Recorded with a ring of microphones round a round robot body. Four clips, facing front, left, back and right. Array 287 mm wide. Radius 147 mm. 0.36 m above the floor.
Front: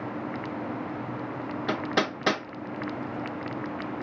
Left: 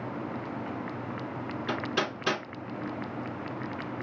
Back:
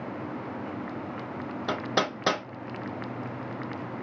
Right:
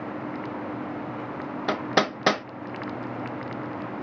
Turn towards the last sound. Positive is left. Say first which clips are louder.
# right 7 dB, even
turn(degrees=-90)